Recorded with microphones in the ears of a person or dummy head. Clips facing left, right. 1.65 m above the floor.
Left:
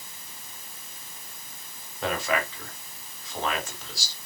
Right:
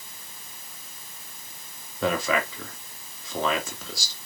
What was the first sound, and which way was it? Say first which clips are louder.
A man speaking: right 3 dB; 80° right.